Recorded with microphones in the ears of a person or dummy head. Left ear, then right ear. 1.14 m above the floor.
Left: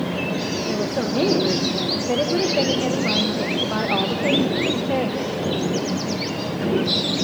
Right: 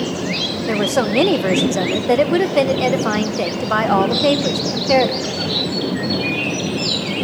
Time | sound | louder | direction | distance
0.7 | a woman speaking | right 8 dB | 50° right (ahead or behind) | 0.9 m